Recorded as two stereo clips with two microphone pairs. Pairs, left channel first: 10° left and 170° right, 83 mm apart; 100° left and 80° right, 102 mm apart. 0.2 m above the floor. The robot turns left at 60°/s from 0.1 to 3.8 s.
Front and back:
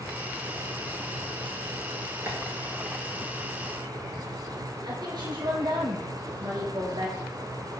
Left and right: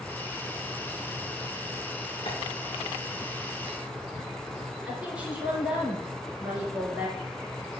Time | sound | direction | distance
2.3 | tapping | 130° left | 4 m
4.8 | a woman speaking | 155° right | 3.5 m